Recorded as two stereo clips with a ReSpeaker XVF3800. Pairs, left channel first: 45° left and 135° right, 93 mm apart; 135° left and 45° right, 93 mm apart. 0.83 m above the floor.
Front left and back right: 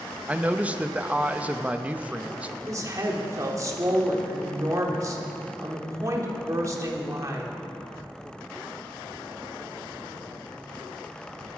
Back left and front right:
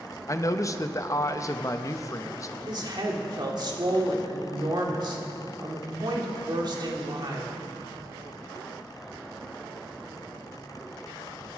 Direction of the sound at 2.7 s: 80° right.